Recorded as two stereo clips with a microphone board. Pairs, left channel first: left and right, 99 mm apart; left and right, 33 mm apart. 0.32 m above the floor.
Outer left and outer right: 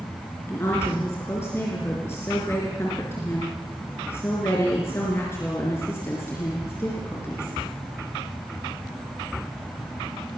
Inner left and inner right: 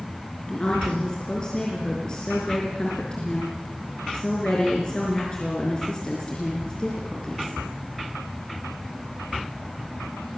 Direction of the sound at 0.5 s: 25° left (ahead or behind).